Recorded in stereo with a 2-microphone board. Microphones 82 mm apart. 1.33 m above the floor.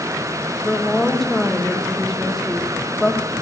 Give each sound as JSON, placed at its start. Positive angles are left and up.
{"t": 0.7, "sound": "a woman speaking", "side_deg": 0, "distance_m": 1.5}